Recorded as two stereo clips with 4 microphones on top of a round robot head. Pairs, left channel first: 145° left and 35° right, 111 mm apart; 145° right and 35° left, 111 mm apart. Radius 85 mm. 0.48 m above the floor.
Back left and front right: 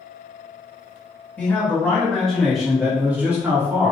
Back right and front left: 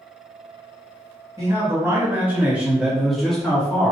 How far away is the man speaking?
About 1.6 m.